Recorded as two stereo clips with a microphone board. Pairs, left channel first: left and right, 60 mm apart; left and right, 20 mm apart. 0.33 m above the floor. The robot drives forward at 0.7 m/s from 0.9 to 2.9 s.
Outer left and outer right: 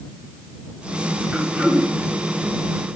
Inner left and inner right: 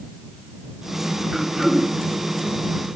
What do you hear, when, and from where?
1.3 s throat clearing: 15° right (ahead or behind), 2 m